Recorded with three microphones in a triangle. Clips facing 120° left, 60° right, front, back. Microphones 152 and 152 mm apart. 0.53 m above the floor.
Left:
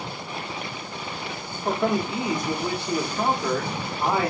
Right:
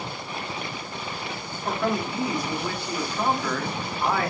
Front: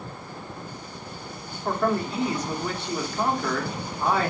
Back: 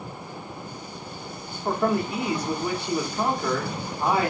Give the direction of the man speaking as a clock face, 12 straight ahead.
8 o'clock.